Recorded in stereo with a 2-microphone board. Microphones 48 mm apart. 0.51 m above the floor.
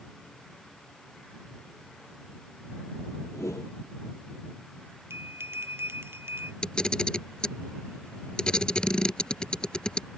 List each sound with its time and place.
3.3 s a whoosh: 80° left
5.1 s a bell: 55° right (ahead or behind)
6.6 s a camera shutter: 20° left (ahead or behind)